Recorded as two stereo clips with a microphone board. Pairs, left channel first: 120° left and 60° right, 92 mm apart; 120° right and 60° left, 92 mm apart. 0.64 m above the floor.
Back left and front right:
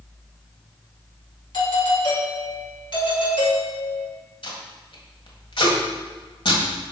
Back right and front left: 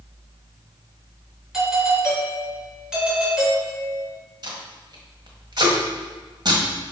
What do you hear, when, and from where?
1.5 s a doorbell: 145° left, 2.5 m
4.4 s tape being pulled: 100° left, 1.5 m